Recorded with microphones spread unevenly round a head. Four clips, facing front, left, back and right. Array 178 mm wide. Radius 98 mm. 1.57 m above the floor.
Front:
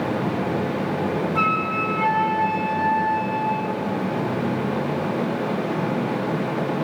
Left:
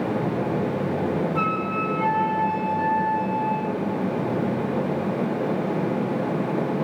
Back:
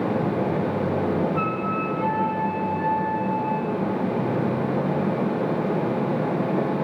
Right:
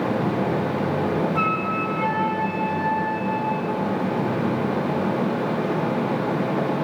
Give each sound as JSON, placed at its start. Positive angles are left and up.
{"t": 1.4, "sound": "a flute", "azimuth_deg": -10, "distance_m": 3.5}